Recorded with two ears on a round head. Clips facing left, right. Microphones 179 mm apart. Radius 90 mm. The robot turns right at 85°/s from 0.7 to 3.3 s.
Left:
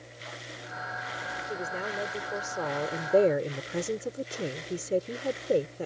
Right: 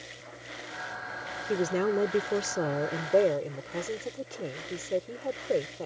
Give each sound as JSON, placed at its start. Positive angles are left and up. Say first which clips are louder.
{"t": 1.5, "sound": "a woman speaking", "louder": "right 10 dB", "azimuth_deg": -135}